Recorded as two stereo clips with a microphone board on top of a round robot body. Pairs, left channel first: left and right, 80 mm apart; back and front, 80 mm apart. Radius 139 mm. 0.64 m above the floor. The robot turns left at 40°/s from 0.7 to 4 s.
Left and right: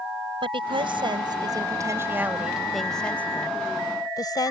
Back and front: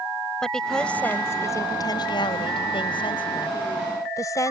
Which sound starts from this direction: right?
A woman speaking, at 0.4 s.